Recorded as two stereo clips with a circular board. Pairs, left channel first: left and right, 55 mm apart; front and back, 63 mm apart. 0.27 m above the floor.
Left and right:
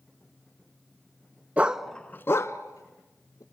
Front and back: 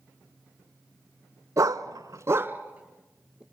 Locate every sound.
1.6 s a dog barking: 150° right, 0.8 m; by 3.4 s 100° left, 2 m